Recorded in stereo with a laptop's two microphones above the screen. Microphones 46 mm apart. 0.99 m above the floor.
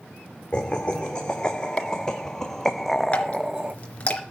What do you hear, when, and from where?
0.5 s laughter: 20° left (ahead or behind), 2.5 m; by 3.8 s 25° right (ahead or behind), 0.5 m
3.1 s dripping: 30° left (ahead or behind), 3 m